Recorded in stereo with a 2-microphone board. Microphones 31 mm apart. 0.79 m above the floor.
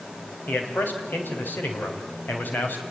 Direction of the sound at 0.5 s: 80° left.